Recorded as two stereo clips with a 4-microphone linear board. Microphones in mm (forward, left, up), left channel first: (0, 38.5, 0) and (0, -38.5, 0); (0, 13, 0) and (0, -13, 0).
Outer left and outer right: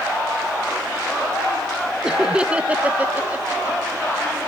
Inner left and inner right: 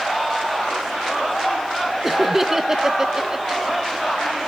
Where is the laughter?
10° right (ahead or behind), 1.0 m; by 3.8 s 25° right (ahead or behind), 1.0 m.